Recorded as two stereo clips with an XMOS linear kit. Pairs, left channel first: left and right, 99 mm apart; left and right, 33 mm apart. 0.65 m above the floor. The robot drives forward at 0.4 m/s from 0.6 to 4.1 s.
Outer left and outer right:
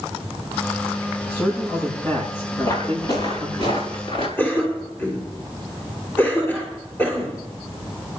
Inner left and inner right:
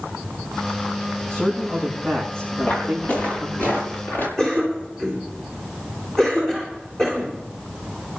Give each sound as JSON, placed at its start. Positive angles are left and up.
{"t": 1.3, "sound": "a man speaking", "side_deg": 30, "distance_m": 7.0}
{"t": 2.6, "sound": "footsteps", "side_deg": 40, "distance_m": 4.0}
{"t": 4.4, "sound": "a cough", "side_deg": 20, "distance_m": 2.5}